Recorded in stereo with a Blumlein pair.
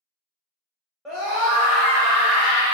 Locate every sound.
1.1 s a scream: 10° right, 1.0 m; by 2.7 s 60° right, 1.1 m